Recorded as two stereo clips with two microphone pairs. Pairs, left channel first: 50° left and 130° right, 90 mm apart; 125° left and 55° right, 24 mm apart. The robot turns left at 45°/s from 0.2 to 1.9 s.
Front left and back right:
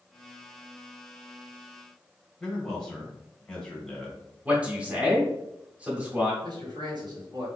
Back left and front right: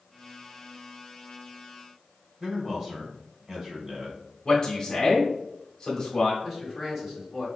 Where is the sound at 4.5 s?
170° left, 1.0 m.